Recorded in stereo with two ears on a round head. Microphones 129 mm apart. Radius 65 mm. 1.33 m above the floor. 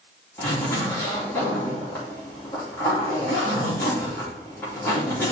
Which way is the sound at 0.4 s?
15° left (ahead or behind).